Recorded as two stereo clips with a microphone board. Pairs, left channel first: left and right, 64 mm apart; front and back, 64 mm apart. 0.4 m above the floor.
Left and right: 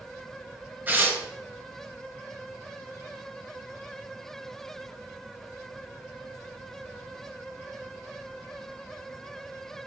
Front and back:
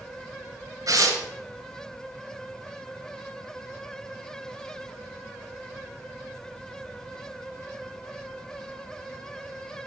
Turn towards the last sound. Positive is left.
turn(degrees=-150)